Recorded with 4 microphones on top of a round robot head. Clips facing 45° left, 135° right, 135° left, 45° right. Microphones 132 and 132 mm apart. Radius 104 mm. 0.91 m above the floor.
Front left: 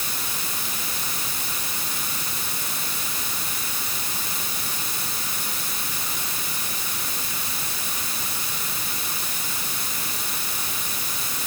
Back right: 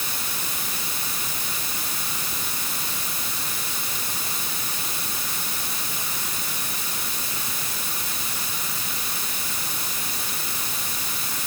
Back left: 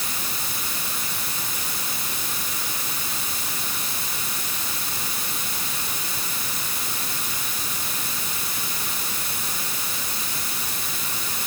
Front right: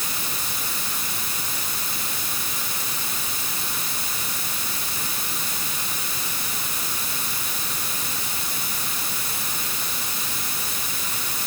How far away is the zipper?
No zipper in this recording.